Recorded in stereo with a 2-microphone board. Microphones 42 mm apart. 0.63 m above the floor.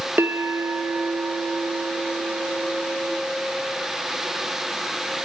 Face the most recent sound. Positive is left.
turn(degrees=-65)  # may be behind; listen again after turning